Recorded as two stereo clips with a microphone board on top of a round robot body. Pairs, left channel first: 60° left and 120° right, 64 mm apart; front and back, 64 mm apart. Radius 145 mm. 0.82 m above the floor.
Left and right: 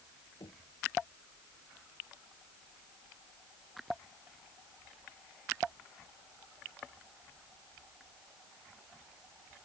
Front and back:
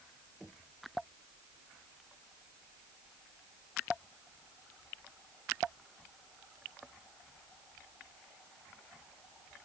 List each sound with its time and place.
0.4 s knocking: 85° left